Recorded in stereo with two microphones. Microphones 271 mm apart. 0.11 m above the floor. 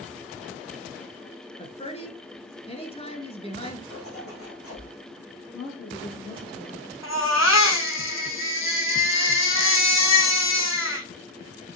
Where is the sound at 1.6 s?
25° left (ahead or behind), 1.3 m.